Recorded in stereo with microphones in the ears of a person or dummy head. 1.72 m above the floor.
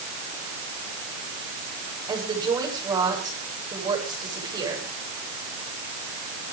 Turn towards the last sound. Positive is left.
turn(degrees=-20)  # may be behind; listen again after turning